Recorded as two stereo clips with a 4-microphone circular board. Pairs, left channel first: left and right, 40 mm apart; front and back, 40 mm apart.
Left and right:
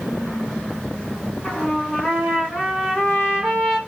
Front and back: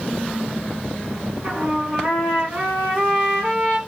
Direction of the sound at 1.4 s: Straight behind.